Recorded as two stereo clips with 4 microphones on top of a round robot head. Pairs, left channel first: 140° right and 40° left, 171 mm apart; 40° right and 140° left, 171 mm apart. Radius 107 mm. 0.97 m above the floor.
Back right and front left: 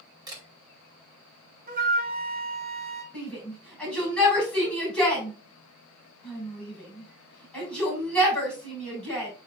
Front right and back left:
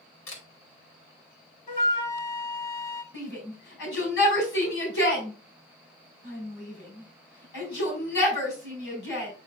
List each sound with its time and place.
0.3 s a camera shutter: 30° right, 2.5 m
1.7 s a flute: straight ahead, 1.8 m
3.1 s a shout: 55° right, 5.5 m